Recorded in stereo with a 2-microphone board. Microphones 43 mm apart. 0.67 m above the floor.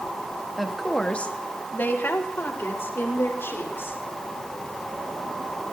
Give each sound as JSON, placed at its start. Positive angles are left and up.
{"t": 0.6, "sound": "a woman speaking", "side_deg": -5, "distance_m": 1.1}